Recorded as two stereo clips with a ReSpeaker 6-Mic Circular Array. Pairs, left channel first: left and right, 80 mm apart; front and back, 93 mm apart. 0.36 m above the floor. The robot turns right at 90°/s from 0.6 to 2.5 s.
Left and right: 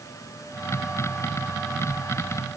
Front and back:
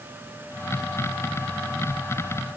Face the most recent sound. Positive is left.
No sound to turn to.